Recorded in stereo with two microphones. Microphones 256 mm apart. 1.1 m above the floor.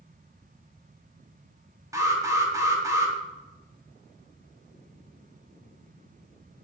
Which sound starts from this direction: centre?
An alarm, at 1.9 s.